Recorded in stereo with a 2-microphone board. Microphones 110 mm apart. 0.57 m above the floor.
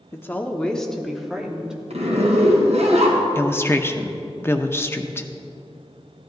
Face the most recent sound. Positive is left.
turn(degrees=20)  # may be behind; listen again after turning